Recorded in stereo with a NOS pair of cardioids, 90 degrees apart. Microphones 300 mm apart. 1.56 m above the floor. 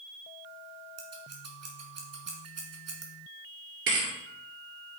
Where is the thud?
50° right, 2.5 m.